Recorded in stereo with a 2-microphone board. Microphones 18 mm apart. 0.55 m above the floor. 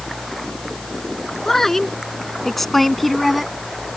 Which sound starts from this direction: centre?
A woman speaking, at 1.4 s.